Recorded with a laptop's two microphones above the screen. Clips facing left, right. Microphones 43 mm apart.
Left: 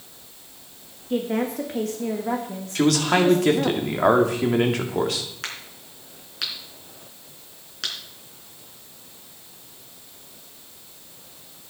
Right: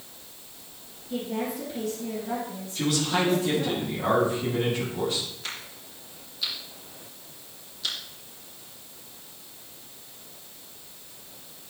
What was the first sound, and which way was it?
A woman speaking, 60° left (ahead or behind).